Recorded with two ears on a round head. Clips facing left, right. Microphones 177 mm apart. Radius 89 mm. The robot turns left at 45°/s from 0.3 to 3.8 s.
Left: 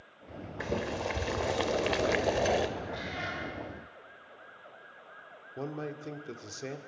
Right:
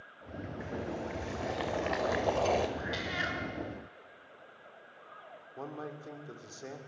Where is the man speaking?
30° left (ahead or behind), 2 m.